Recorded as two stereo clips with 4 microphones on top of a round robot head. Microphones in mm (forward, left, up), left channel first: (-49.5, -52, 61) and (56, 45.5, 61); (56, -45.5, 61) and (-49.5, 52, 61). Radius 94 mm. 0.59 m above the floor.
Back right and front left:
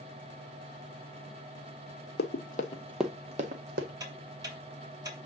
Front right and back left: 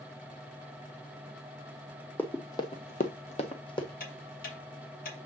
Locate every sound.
2.2 s running footsteps: 120° right, 1.2 m; by 3.9 s 20° left, 1.5 m
4.0 s ticking: 25° right, 2.5 m